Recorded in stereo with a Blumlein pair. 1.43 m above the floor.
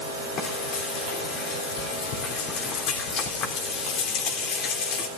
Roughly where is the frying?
Ahead left.